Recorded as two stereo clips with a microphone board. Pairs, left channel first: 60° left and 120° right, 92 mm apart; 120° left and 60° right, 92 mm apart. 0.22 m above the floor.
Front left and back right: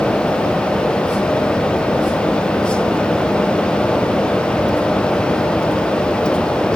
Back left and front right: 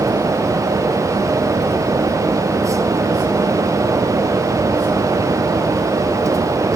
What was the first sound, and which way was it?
Only background noise.